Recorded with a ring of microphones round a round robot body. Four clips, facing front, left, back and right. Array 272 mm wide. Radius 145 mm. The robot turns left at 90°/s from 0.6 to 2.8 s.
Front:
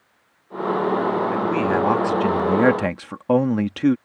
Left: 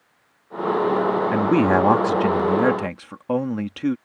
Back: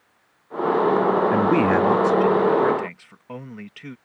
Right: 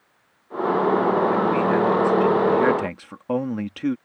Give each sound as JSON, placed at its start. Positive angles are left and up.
{"t": 1.3, "sound": "a man speaking", "azimuth_deg": 135}